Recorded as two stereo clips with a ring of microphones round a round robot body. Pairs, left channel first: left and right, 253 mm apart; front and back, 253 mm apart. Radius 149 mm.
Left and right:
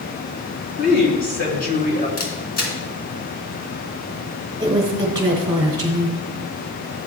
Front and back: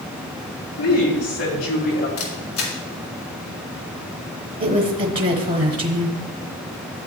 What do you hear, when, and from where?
0.8 s a woman speaking: 35° left, 3.5 m
2.2 s a camera shutter: 40° left, 2.5 m
4.6 s a woman speaking: 155° right, 1.3 m